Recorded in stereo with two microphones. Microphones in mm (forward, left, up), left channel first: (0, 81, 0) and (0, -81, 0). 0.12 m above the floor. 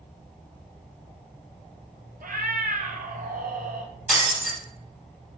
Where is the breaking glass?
5° right (ahead or behind), 1.7 m.